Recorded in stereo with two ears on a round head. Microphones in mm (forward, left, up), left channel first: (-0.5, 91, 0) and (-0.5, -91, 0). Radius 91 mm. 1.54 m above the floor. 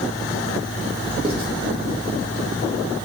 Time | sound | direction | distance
1.2 | writing | 25° right (ahead or behind) | 1.7 m